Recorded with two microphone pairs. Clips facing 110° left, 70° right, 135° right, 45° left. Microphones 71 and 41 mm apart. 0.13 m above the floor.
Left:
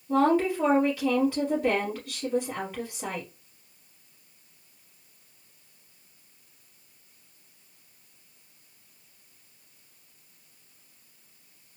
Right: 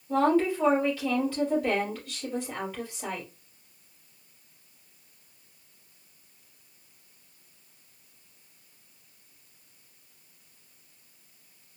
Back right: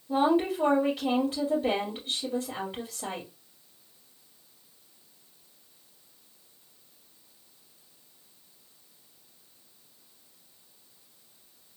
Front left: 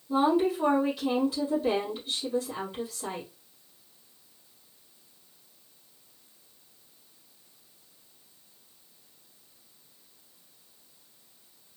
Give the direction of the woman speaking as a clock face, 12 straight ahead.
6 o'clock.